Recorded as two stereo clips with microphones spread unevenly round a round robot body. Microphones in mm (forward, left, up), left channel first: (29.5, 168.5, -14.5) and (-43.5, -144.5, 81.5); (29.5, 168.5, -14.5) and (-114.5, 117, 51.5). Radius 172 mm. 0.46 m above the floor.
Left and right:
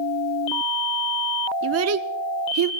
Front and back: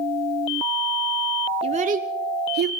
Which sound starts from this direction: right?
A child speaking, at 1.6 s.